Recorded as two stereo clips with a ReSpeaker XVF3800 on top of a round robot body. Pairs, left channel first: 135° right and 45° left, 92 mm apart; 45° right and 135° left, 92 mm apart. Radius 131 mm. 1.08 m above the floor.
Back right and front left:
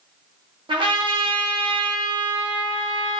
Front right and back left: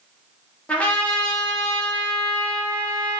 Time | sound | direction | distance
0.7 | a trumpet | 30° left | 0.9 m